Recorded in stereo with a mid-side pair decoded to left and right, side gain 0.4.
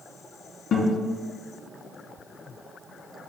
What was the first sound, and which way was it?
A guitar, 70° left.